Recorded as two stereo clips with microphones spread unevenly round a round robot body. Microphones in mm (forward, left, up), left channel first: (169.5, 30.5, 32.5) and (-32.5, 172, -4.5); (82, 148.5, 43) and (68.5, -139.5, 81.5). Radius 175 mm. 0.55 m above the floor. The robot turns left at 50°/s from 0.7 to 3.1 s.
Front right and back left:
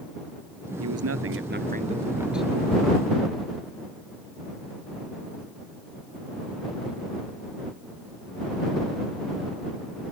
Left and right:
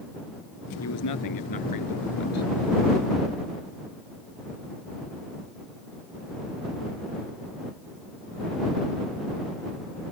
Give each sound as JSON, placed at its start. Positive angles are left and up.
{"t": 0.8, "sound": "a man speaking", "azimuth_deg": 135}